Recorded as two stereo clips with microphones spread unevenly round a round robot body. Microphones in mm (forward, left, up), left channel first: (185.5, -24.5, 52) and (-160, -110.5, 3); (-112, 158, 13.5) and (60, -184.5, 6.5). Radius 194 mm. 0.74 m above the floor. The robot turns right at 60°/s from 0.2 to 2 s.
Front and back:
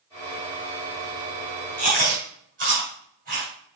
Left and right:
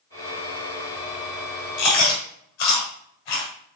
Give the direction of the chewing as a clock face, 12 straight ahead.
8 o'clock.